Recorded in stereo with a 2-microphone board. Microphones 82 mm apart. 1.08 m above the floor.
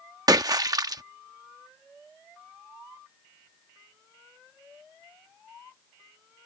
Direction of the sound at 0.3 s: 50° right (ahead or behind).